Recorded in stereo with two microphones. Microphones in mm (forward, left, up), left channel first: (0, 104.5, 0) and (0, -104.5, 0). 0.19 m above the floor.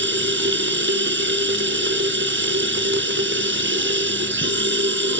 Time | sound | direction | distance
0.0 | running water | 65° right (ahead or behind) | 1.0 m